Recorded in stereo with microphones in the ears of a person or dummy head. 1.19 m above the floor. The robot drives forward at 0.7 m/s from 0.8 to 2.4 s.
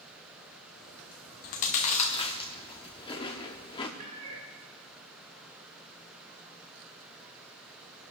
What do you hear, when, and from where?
1.4 s chewing: 35° left (ahead or behind), 0.7 m; by 3.9 s 25° left (ahead or behind), 1.1 m
4.0 s a cat meowing: 65° right (ahead or behind), 4.5 m